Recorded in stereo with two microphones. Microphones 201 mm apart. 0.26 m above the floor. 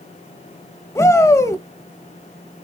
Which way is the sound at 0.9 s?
15° left (ahead or behind).